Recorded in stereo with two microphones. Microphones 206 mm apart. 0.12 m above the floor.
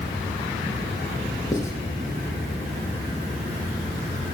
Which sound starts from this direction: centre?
Writing, at 1.5 s.